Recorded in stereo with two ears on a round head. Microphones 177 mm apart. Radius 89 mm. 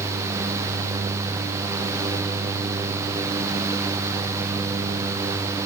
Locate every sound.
Only background noise.